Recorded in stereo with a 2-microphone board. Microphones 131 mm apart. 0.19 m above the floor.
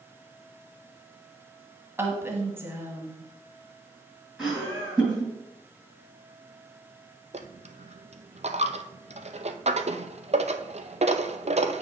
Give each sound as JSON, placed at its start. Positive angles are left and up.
{"t": 2.0, "sound": "a woman speaking", "side_deg": -20, "distance_m": 1.2}
{"t": 4.4, "sound": "laughter", "side_deg": -5, "distance_m": 2.5}
{"t": 7.3, "sound": "a dropped coin", "side_deg": -55, "distance_m": 0.6}